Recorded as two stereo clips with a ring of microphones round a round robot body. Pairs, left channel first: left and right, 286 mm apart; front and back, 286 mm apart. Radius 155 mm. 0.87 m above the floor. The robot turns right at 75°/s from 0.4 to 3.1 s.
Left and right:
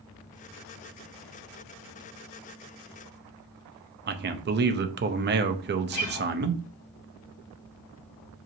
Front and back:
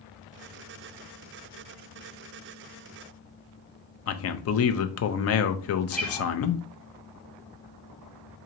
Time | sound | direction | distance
4.1 | a man speaking | 35° right | 0.5 m
5.9 | a guitar | 90° left | 1.5 m